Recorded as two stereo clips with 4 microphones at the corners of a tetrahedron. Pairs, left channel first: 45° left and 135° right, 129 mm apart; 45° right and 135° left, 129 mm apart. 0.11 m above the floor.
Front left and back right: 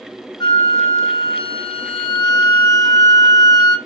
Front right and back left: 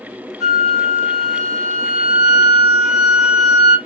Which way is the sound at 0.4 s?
50° left.